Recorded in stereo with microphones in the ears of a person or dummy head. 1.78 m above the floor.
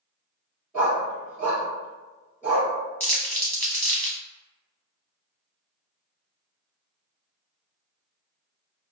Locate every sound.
0.7 s a dog barking: 10° right (ahead or behind), 1.9 m
3.0 s crumpling: 15° left (ahead or behind), 0.8 m